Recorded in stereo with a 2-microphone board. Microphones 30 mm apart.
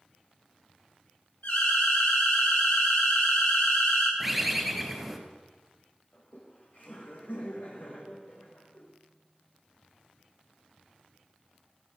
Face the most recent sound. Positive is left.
turn(degrees=70)  # may be behind; listen again after turning